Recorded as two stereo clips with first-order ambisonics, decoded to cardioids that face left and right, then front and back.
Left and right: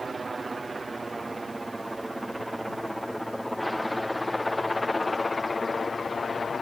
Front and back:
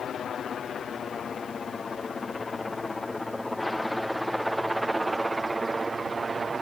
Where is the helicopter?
25° right; by 6.6 s 130° left.